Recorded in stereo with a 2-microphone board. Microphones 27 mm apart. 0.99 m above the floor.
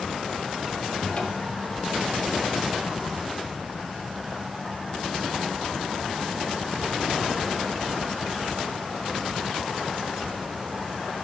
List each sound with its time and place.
1.0 s a cupboard door: 45° left (ahead or behind), 1.9 m